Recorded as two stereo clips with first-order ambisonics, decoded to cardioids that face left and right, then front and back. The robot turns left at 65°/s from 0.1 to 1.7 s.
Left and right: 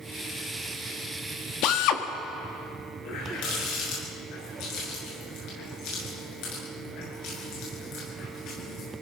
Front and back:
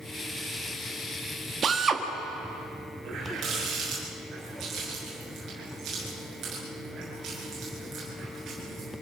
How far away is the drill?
About 1.5 m.